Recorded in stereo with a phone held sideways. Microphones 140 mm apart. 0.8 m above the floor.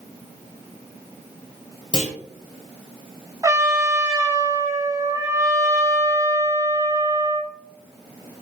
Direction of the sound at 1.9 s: 35° left (ahead or behind).